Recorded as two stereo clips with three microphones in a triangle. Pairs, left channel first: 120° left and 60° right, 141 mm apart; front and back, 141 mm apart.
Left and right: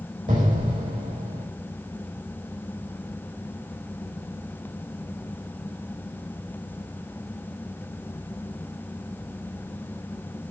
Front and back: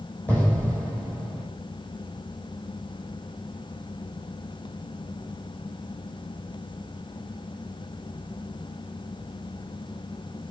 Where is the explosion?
80° right, 3 m.